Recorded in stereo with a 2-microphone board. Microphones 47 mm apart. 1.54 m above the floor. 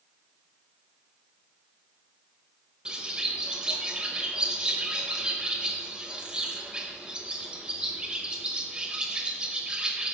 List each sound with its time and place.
2.9 s a bird: 20° right (ahead or behind), 0.9 m